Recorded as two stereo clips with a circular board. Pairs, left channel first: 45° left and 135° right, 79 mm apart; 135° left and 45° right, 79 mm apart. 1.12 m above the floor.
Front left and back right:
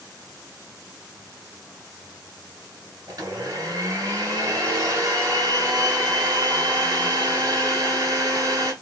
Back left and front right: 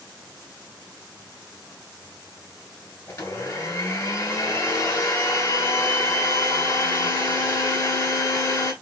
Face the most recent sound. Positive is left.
turn(degrees=-175)